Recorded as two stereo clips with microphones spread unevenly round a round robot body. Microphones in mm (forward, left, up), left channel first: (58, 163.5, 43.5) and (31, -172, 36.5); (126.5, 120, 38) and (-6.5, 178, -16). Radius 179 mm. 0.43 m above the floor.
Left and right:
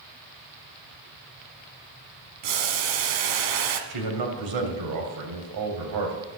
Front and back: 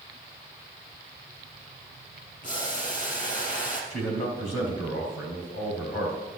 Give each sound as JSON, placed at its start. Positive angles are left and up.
{"t": 2.4, "sound": "boiling", "azimuth_deg": -90, "distance_m": 1.3}
{"t": 3.9, "sound": "a man speaking", "azimuth_deg": -85, "distance_m": 2.5}